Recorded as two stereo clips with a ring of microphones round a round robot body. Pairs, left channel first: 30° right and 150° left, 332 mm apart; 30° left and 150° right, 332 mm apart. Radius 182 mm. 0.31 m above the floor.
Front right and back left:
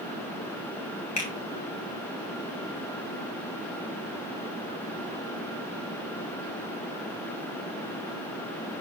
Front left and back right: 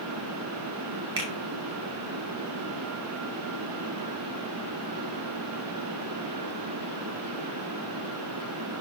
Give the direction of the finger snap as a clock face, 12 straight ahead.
3 o'clock.